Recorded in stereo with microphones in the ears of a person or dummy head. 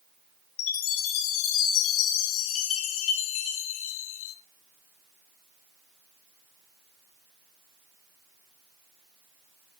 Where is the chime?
85° left, 2 m.